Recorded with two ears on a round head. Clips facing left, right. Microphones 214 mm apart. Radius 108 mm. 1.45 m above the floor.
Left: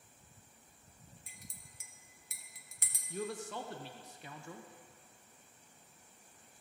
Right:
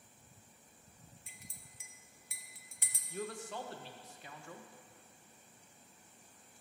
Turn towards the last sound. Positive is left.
turn(degrees=90)